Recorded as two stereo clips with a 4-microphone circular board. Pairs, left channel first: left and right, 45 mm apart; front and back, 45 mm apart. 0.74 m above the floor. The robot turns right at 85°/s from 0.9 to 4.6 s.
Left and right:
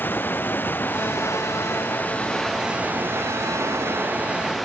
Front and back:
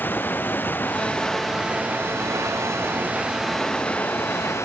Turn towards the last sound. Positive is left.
turn(degrees=0)